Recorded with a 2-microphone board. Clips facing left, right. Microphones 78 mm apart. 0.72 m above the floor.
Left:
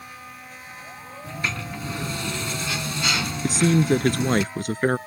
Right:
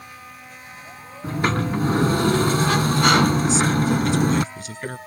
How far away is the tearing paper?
No tearing paper in this recording.